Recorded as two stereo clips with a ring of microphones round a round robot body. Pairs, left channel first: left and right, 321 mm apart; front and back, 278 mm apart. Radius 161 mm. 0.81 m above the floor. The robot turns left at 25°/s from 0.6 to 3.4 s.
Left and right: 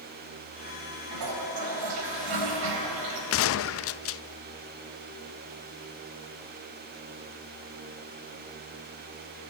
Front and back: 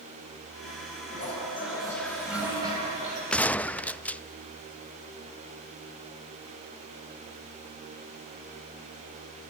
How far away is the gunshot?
About 0.5 m.